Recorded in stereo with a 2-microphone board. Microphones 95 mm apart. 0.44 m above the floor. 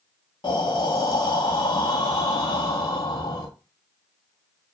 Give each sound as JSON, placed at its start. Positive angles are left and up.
{"t": 0.4, "sound": "breathing", "side_deg": 50, "distance_m": 0.7}